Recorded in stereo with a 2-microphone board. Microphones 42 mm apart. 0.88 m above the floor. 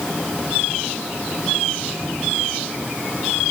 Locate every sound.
Only background noise.